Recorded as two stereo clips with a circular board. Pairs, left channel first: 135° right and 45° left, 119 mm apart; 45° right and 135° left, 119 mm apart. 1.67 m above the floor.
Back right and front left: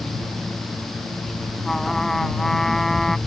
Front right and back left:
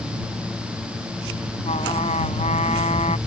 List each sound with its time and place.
1.6 s a trumpet: 50° right